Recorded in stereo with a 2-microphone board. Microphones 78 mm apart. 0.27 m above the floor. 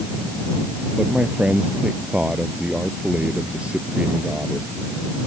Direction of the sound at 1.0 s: 15° right (ahead or behind).